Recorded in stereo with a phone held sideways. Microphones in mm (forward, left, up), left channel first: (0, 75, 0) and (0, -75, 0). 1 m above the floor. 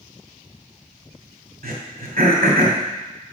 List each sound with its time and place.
1.6 s throat clearing: 80° right, 2.5 m